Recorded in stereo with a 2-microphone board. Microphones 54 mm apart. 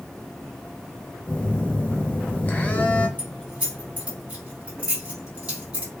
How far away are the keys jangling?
About 1.4 m.